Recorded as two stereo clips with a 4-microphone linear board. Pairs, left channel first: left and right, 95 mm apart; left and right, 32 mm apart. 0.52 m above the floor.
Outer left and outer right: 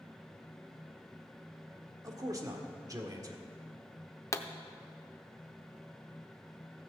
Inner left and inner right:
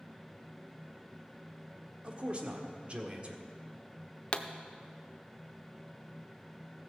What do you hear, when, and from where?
2.0 s a man speaking: 40° right (ahead or behind), 1.5 m
4.3 s a pop: 30° left (ahead or behind), 0.6 m